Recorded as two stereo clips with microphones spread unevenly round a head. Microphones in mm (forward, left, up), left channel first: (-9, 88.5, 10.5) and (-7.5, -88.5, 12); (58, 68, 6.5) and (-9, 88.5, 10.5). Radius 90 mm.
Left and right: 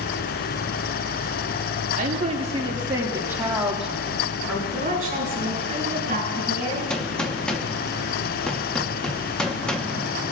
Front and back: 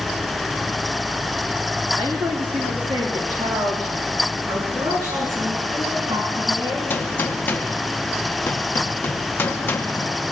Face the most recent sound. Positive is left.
turn(degrees=10)